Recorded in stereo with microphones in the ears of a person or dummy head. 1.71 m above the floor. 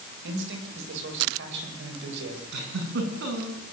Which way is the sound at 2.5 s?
65° right (ahead or behind).